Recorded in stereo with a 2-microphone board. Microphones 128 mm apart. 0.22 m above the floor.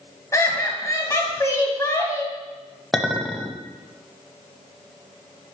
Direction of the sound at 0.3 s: 25° left (ahead or behind).